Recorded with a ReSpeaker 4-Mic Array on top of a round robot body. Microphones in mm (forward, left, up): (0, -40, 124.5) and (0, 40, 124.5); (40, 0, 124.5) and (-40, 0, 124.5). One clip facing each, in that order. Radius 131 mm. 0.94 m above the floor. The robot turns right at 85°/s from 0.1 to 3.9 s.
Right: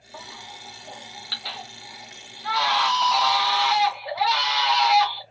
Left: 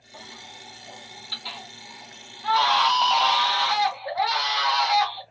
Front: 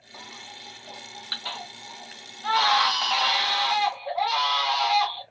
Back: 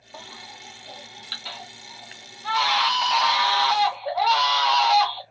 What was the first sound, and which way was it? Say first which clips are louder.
A baby crying: right 4 dB, back 2 dB; 160° right.